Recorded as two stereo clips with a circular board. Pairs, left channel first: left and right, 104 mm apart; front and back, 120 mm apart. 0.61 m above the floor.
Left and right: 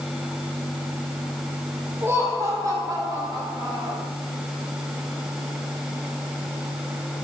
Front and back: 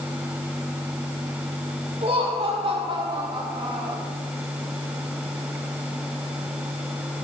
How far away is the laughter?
About 4 m.